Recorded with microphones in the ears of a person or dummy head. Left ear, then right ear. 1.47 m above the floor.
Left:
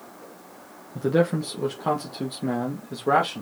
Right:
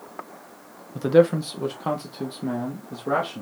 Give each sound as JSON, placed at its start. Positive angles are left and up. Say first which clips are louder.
{"t": 0.9, "sound": "a man speaking", "louder": "right 5 dB", "side_deg": -25, "distance_m": 1.0}